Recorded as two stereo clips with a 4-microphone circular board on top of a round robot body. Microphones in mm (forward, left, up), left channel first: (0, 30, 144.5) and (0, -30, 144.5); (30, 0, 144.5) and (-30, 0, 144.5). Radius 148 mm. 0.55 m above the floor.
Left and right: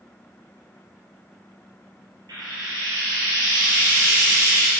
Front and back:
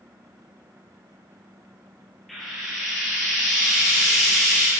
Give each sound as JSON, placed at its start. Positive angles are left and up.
{"t": 2.3, "sound": "frying", "azimuth_deg": -90, "distance_m": 3.0}